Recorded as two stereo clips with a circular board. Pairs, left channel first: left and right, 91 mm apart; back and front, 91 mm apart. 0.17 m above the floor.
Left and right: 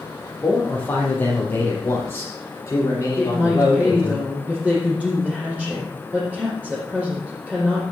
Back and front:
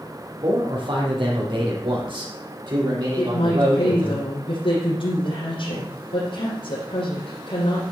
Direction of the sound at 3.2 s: 170° right.